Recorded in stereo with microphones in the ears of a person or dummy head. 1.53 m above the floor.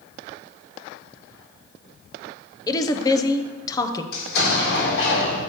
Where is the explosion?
70° left (ahead or behind), 2.5 m.